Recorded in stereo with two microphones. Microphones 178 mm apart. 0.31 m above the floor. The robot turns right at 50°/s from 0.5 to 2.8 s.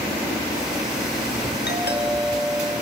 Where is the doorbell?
75° left, 5.5 m; by 2.7 s 130° left, 5.5 m.